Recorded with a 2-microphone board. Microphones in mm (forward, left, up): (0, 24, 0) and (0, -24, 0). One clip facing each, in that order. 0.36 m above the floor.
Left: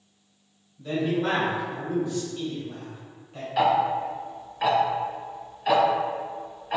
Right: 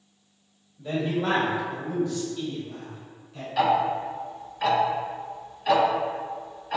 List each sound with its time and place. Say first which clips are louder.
0.8 s a man speaking: left 1 dB; 10° right (ahead or behind), 1.0 m; by 3.5 s 40° left (ahead or behind), 1.4 m
3.6 s ticking: left 1 dB; 10° left (ahead or behind), 0.5 m